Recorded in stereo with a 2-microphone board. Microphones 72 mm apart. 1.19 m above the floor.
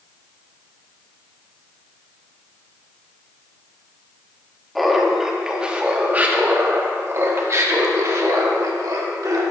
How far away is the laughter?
About 1.7 m.